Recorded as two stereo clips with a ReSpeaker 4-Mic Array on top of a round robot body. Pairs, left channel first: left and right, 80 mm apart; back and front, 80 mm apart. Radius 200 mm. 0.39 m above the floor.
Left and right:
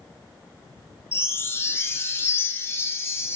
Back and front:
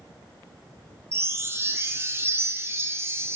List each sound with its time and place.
1.1 s a chime: 45° left, 0.5 m